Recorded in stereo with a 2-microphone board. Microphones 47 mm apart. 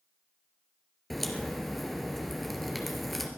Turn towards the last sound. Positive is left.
turn(degrees=0)  # may be behind; listen again after turning